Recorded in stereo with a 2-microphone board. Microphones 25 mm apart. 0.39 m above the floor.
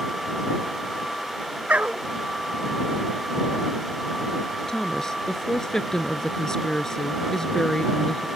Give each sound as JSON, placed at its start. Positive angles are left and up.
{"t": 1.7, "sound": "a dog barking", "side_deg": -75}
{"t": 4.7, "sound": "a woman speaking", "side_deg": 20}